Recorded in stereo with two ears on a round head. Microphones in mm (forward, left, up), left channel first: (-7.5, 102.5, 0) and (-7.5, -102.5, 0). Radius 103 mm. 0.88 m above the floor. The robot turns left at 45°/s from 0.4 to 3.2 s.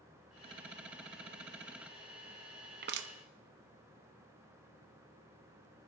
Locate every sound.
2.8 s crushing: 40° right (ahead or behind), 0.7 m; by 3.1 s 55° right (ahead or behind), 0.7 m